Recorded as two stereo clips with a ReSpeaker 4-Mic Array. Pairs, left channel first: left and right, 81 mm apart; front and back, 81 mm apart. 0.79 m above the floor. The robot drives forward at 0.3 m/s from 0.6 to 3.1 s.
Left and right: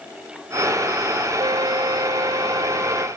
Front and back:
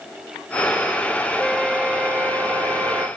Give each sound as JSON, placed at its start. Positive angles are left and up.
{"t": 1.4, "sound": "a flute", "azimuth_deg": -95}